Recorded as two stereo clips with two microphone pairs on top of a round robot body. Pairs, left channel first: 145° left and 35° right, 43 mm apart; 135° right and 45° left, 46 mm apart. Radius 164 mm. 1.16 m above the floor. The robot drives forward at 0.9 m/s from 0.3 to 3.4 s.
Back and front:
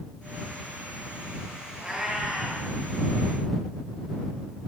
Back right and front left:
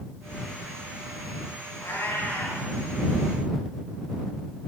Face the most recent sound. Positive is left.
turn(degrees=-120)